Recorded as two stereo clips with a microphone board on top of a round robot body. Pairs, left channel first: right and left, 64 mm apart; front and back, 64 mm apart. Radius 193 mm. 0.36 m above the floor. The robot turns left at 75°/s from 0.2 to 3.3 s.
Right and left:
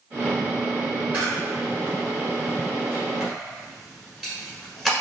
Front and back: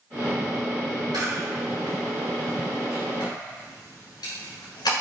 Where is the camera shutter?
160° left, 1.3 m; by 4.9 s 5° right, 1.3 m.